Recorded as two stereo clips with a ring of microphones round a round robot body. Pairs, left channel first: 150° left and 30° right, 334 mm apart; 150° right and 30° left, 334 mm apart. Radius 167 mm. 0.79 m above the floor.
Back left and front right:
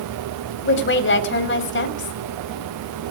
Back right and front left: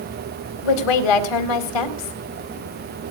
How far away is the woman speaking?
About 4 m.